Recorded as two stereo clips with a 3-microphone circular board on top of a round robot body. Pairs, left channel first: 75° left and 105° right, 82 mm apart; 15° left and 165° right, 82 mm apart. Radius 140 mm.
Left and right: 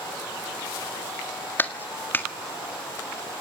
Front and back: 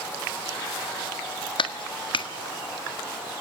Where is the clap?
10° left, 1.7 m.